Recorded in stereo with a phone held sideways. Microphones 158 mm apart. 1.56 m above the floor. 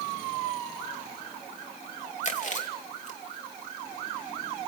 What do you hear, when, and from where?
2.2 s chewing: 50° left (ahead or behind), 3 m